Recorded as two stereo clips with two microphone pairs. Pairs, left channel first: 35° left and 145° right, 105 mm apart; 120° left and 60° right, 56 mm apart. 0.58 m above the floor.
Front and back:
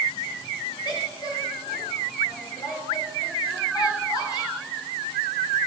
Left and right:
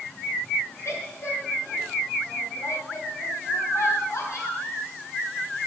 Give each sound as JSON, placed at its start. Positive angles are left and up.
{"t": 0.8, "sound": "a woman speaking", "azimuth_deg": 85, "distance_m": 3.0}